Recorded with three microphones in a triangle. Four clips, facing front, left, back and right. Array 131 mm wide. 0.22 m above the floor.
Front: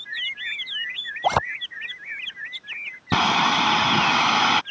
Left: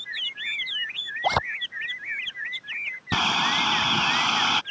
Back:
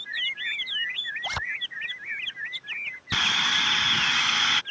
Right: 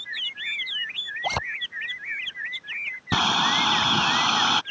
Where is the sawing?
10° right.